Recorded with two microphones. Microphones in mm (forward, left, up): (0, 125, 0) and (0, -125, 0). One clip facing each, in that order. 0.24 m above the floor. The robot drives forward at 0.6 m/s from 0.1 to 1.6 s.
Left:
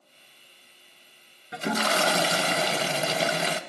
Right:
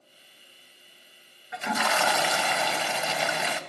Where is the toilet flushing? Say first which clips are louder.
Left 3 dB; 40° left (ahead or behind), 0.7 m.